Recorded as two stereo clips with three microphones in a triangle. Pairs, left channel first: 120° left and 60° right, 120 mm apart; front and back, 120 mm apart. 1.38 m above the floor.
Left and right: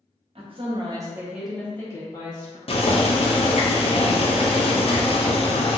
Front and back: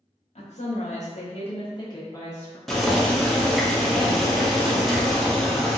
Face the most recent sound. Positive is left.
turn(degrees=90)